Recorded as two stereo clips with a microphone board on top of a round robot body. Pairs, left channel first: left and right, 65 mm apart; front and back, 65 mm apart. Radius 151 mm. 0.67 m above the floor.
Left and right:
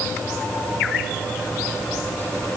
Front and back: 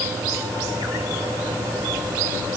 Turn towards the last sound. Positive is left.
No sound to turn to.